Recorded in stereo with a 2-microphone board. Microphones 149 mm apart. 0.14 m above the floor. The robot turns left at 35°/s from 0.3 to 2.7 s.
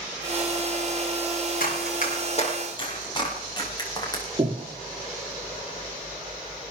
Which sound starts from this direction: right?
Breathing, at 4.4 s.